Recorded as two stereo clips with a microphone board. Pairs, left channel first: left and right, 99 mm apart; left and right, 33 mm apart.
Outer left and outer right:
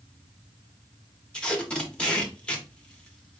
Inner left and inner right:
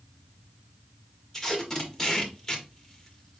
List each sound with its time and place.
1.3 s tape being pulled: 10° left (ahead or behind), 1.4 m